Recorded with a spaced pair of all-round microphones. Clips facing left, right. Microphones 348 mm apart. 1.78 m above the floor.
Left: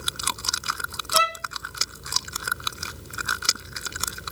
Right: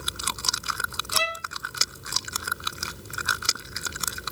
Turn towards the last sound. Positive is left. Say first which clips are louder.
# left 4 dB
turn(degrees=-35)  # may be behind; listen again after turning